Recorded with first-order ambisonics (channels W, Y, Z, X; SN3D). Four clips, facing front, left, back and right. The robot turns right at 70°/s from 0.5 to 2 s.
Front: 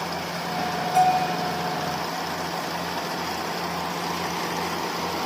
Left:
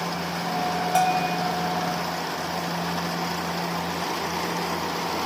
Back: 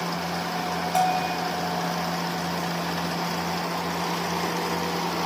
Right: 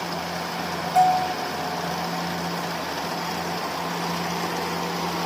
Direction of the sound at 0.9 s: 110° left.